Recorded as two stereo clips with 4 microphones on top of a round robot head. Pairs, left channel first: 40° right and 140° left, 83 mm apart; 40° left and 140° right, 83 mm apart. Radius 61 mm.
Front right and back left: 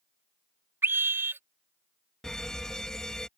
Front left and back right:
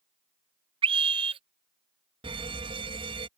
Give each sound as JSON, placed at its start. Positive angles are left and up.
{"t": 0.8, "sound": "a scream", "azimuth_deg": -155}
{"t": 2.2, "sound": "a fire alarm", "azimuth_deg": -125}